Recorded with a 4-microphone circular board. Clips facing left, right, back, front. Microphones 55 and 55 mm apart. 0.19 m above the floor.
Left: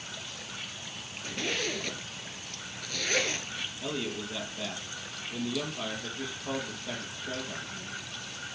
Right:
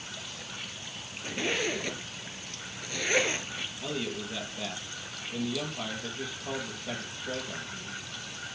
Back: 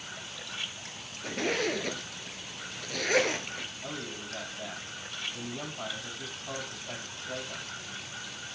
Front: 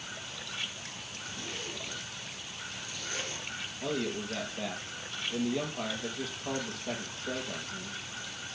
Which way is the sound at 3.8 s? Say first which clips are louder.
Even, front 6 dB; 10° right.